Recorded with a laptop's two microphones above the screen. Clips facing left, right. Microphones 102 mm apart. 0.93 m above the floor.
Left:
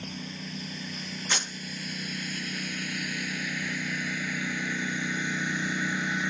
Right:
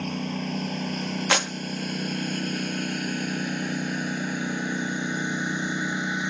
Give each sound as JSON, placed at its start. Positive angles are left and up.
{"t": 0.0, "sound": "a lawn mower", "side_deg": -60}
{"t": 1.3, "sound": "a clap", "side_deg": -80}